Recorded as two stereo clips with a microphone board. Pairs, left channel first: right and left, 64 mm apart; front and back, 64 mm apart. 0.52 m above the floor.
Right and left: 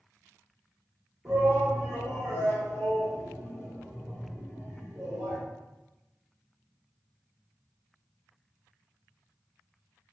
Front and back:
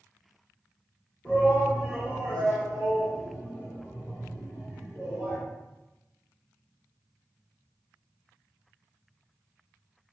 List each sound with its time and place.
1.2 s a shout: 65° left, 1.2 m